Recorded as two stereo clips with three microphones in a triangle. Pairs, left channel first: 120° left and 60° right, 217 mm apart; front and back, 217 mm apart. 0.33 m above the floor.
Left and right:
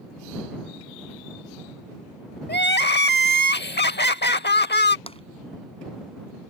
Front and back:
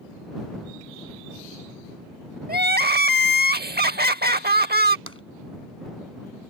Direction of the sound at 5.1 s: 175° right.